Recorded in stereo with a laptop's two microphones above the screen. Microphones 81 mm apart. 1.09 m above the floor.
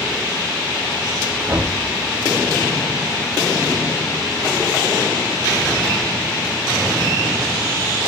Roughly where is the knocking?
Centre.